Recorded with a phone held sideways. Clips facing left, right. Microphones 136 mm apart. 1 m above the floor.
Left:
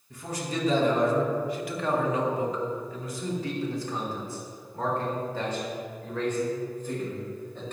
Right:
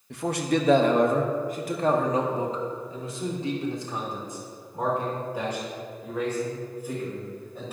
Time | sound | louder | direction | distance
0.1 | a man speaking | right 8 dB | 75° right (ahead or behind) | 1.1 m